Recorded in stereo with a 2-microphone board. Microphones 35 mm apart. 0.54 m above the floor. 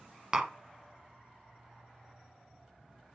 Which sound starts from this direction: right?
Tapping, at 0.3 s.